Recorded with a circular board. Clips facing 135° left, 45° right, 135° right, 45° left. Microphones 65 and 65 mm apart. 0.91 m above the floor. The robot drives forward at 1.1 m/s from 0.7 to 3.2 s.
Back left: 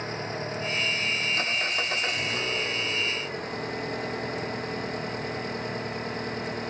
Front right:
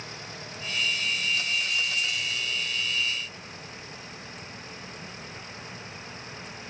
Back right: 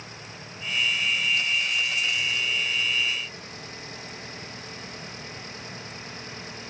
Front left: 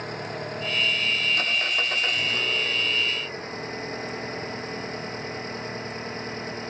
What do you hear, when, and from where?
0.0 s an engine running: 85° left; by 6.7 s 100° left